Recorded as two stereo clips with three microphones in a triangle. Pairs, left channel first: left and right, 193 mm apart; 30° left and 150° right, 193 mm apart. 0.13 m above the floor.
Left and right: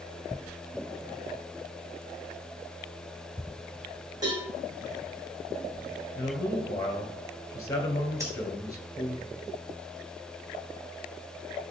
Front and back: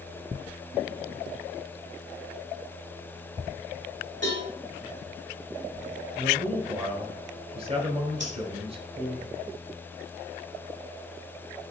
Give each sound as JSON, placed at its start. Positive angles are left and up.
{"t": 4.2, "sound": "a cowbell", "azimuth_deg": -160, "distance_m": 4.0}
{"t": 6.2, "sound": "a man speaking", "azimuth_deg": 160, "distance_m": 2.0}
{"t": 8.2, "sound": "breathing", "azimuth_deg": -160, "distance_m": 4.0}